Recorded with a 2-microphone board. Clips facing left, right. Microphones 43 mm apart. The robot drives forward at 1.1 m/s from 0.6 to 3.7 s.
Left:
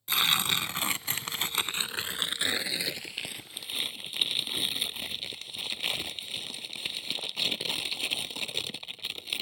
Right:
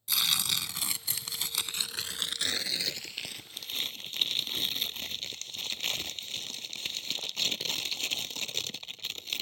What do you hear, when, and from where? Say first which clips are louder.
0.1 s tearing paper: left 4 dB; 35° left (ahead or behind); by 9.4 s 10° left (ahead or behind)